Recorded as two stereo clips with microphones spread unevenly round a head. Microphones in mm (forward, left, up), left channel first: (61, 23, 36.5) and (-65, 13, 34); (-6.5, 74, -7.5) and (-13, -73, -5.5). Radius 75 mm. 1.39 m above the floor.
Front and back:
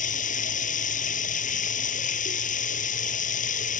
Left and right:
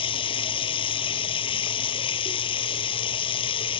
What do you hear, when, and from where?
0.0 s running water: 30° left